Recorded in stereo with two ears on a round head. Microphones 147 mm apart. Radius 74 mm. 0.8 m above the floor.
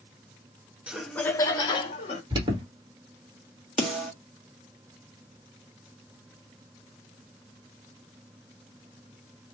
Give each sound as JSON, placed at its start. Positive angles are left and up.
{"t": 0.9, "sound": "laughter", "side_deg": -5, "distance_m": 0.8}
{"t": 2.3, "sound": "an alarm", "side_deg": -25, "distance_m": 1.4}
{"t": 3.8, "sound": "a snare drum", "side_deg": -5, "distance_m": 1.4}